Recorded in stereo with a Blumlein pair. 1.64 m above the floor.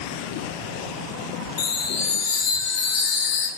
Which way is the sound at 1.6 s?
45° left.